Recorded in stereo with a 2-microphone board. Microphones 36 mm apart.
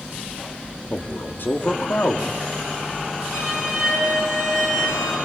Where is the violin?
10° right (ahead or behind), 9.5 m.